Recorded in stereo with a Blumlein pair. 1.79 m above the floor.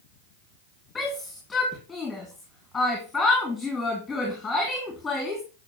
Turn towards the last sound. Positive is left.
turn(degrees=10)